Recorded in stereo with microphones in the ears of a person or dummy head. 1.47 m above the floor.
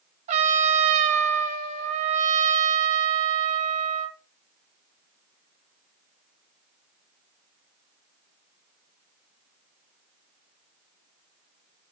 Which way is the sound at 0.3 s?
40° right (ahead or behind).